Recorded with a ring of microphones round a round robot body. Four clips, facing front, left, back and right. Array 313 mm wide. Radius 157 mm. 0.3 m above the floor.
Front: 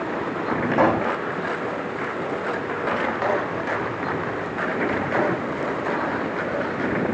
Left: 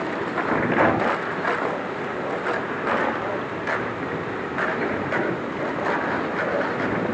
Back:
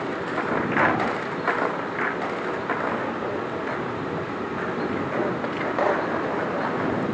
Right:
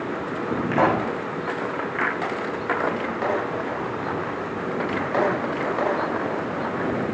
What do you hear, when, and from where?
0.7 s a pop: 40° right, 5.5 m